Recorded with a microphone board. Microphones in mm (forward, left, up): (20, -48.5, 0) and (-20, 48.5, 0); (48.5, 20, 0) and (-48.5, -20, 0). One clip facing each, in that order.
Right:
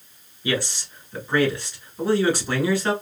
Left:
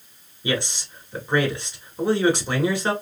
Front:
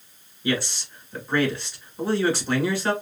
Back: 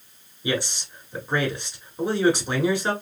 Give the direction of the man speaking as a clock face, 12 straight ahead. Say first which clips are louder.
Even, front 1 dB; 7 o'clock.